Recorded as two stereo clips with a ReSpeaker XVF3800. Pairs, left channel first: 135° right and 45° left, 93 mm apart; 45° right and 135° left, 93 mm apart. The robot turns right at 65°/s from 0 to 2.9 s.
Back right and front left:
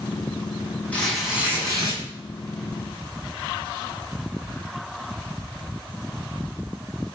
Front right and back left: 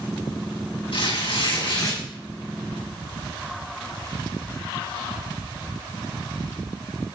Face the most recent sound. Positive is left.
turn(degrees=70)